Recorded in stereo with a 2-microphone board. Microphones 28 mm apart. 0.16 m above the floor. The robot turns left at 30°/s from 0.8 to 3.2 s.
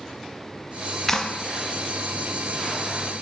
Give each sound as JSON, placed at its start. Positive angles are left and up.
{"t": 1.1, "sound": "a clap", "side_deg": 15, "distance_m": 1.3}